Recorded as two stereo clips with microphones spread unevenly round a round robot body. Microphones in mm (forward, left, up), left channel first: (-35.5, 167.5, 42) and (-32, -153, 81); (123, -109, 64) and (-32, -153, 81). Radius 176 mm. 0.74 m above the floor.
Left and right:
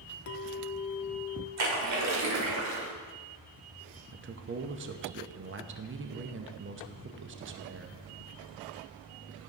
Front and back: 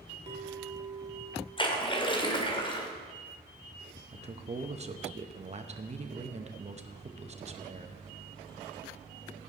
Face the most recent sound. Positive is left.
turn(degrees=-130)